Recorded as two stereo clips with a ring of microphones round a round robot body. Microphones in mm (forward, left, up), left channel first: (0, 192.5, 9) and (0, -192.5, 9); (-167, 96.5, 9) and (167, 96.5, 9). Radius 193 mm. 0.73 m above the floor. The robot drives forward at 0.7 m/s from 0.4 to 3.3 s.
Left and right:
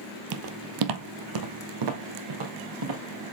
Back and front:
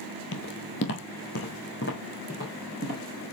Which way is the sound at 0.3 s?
125° right.